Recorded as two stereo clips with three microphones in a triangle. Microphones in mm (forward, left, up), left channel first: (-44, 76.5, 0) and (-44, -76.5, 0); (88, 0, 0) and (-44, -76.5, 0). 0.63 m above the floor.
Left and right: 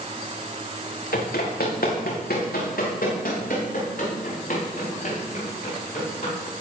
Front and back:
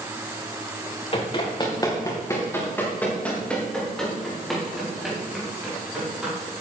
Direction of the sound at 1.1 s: 80° left.